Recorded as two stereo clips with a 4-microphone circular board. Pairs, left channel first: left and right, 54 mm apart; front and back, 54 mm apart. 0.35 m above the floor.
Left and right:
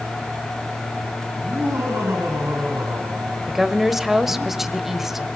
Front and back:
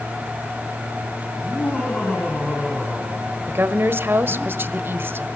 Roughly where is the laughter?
Ahead right.